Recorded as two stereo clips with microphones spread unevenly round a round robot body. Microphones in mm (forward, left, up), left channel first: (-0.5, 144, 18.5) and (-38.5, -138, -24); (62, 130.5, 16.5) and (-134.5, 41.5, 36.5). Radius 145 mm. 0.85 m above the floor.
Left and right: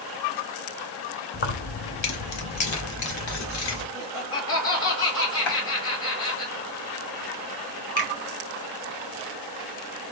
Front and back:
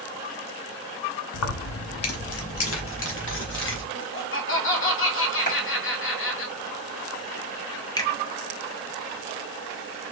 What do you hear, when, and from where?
1.3 s keys jangling: 20° left, 0.6 m; by 3.8 s 60° left, 1.8 m
3.9 s laughter: 30° left, 1.9 m
5.5 s a clap: 80° left, 2 m
8.0 s a finger snap: 95° left, 1.5 m